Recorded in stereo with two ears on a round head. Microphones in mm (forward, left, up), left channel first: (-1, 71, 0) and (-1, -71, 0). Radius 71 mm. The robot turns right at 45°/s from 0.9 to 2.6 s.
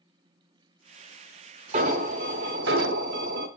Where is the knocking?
No knocking in this recording.